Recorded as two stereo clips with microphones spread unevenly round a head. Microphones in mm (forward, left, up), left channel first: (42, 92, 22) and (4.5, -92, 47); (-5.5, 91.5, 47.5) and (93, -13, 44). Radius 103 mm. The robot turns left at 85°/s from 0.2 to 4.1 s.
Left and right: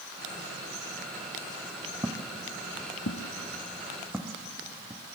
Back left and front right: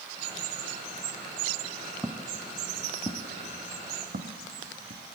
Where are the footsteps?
145° right, 1.0 m; by 5.0 s 25° right, 2 m.